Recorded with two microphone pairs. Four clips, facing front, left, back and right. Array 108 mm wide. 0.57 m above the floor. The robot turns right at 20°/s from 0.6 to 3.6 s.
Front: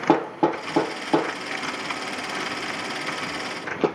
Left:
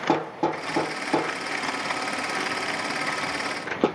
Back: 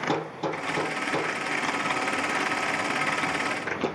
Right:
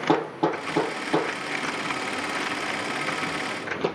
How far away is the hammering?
About 3.5 m.